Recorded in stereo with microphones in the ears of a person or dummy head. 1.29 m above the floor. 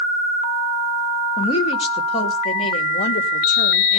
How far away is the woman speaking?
About 2 m.